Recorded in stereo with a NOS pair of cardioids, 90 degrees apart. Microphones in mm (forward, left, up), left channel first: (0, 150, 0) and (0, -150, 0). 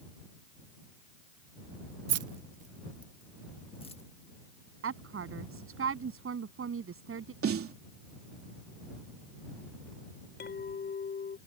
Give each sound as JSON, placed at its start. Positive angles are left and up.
{"t": 2.1, "sound": "keys jangling", "azimuth_deg": -65}
{"t": 4.8, "sound": "a woman speaking", "azimuth_deg": -45}
{"t": 7.4, "sound": "a snare drum", "azimuth_deg": -50}
{"t": 10.4, "sound": "a clink", "azimuth_deg": 35}